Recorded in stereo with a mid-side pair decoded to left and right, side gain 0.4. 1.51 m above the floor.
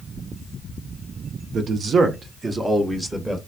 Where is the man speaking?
65° right, 1.1 m; by 3.4 s 20° right, 1.4 m.